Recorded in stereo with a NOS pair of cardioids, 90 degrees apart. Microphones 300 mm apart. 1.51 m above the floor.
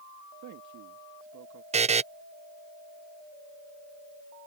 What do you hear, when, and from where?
0.4 s a man speaking: 70° right
1.7 s a buzzer: 20° right